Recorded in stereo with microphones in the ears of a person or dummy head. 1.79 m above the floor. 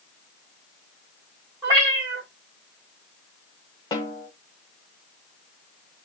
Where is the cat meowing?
20° right (ahead or behind), 1.5 m.